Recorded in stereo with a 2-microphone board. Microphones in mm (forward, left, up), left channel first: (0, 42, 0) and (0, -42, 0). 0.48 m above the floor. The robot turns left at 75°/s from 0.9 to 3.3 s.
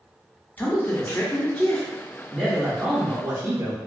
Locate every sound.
0.6 s a man speaking: 20° left (ahead or behind), 0.7 m; by 3.8 s 20° right (ahead or behind), 0.7 m